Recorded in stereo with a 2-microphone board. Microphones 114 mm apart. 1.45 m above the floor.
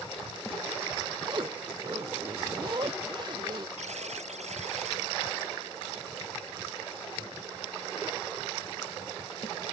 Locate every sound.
1.2 s a zipper: 40° right (ahead or behind)
3.8 s a buzzer: 80° right